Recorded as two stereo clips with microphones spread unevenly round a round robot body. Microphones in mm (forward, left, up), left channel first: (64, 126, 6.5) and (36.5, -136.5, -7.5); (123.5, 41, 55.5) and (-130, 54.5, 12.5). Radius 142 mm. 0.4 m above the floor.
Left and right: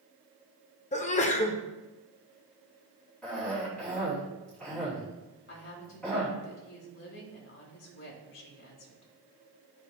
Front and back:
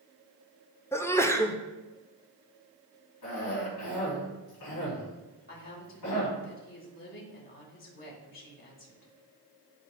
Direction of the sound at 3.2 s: Straight ahead.